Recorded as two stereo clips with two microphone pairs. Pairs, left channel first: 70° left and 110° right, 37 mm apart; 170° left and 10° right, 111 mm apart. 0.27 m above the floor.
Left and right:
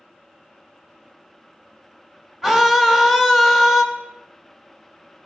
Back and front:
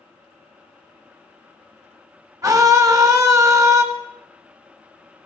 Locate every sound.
2.4 s a scream: 30° right, 1.0 m